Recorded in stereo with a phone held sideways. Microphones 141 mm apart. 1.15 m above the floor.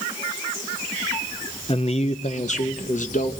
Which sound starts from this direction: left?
A man speaking, at 1.7 s.